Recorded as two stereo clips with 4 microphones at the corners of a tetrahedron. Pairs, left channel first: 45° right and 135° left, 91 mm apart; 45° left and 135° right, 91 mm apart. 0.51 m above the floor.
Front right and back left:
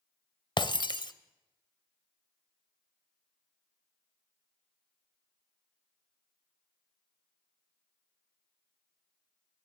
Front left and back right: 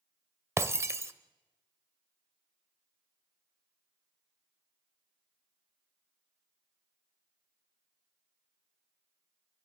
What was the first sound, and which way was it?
Breaking glass, 75° right.